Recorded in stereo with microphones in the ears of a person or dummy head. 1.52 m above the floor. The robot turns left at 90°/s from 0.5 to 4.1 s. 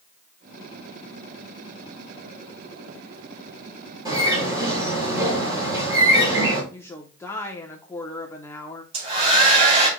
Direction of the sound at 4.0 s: 25° right (ahead or behind).